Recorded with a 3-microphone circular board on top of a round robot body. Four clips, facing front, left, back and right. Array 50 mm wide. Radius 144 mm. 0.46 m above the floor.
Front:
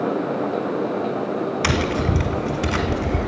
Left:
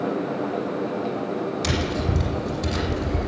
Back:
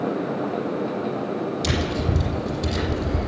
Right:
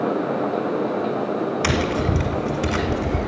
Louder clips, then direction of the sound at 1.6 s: Right 4 dB, front 3 dB; 30° right.